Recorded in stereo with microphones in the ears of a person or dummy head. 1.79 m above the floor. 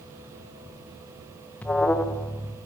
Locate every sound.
1.6 s an alarm: 15° left (ahead or behind), 1.3 m